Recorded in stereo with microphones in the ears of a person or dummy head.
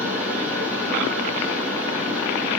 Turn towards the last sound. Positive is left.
turn(degrees=-10)  # may be behind; listen again after turning